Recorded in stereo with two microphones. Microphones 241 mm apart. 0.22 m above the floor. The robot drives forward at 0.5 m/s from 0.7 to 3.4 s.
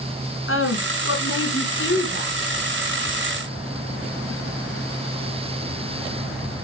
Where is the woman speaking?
60° left (ahead or behind), 2.5 m; by 2.4 s 50° left (ahead or behind), 2.5 m.